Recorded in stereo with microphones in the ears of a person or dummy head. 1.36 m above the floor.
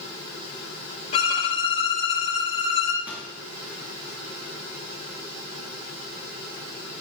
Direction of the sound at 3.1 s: 5° right (ahead or behind).